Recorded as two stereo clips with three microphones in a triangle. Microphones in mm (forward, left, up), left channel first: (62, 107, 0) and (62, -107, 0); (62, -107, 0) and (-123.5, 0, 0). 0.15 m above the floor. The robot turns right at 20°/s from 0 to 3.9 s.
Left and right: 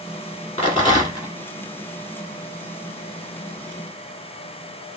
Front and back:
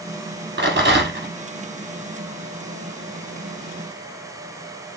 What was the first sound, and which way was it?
A rattle, 145° left.